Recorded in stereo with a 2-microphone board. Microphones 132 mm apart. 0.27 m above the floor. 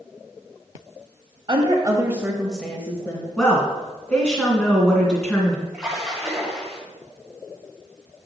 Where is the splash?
5° right (ahead or behind), 2.0 m.